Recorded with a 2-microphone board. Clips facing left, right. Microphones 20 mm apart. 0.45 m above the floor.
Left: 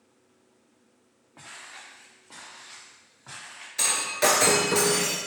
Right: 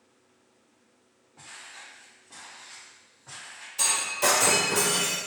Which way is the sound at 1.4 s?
75° left (ahead or behind).